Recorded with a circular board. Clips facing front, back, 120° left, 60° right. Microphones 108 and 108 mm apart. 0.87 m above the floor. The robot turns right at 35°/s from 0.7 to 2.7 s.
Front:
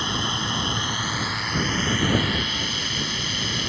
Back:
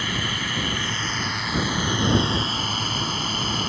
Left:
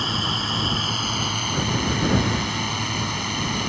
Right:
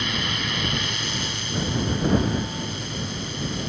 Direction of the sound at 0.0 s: 65° left.